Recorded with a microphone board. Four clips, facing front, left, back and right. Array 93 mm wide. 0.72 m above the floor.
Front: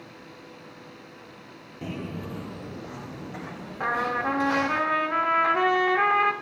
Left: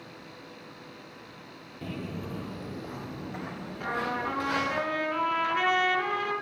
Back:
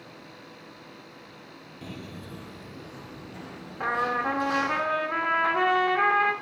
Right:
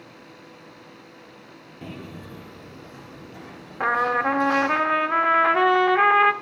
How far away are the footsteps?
About 0.7 m.